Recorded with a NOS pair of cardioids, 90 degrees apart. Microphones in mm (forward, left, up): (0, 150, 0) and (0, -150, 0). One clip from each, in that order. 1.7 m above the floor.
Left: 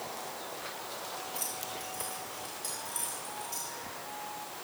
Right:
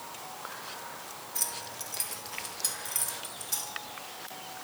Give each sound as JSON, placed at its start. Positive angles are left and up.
{"t": 1.4, "sound": "keys jangling", "azimuth_deg": -55, "distance_m": 3.5}